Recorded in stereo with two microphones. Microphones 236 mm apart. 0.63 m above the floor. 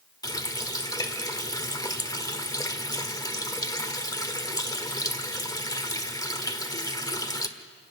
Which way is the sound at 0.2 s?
15° left (ahead or behind).